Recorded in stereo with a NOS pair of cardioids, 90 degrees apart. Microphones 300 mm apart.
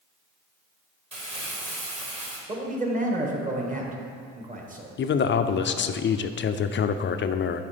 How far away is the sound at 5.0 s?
About 0.5 m.